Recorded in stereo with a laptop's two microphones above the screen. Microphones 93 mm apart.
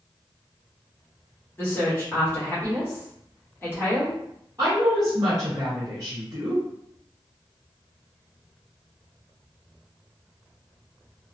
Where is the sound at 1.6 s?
25° left (ahead or behind), 1.0 m.